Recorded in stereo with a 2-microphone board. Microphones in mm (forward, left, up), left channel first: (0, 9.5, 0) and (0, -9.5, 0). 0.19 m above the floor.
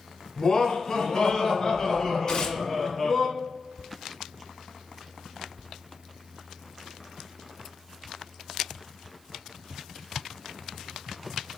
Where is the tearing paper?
30° left (ahead or behind), 1.1 m.